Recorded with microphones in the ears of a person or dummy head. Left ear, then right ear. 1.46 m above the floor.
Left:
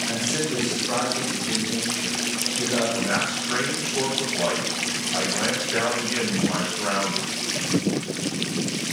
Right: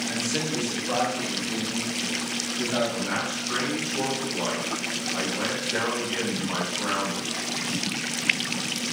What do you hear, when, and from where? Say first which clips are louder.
0.1 s a man speaking: left 2 dB; 25° left (ahead or behind), 1.1 m; by 2.8 s 15° left (ahead or behind), 5 m
2.9 s a man speaking: left 4 dB; 20° left (ahead or behind), 4 m